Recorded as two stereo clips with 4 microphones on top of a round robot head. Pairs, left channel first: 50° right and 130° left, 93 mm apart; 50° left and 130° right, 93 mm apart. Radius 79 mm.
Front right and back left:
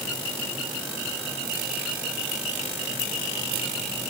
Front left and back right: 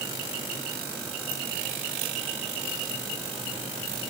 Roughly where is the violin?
I don't hear a violin.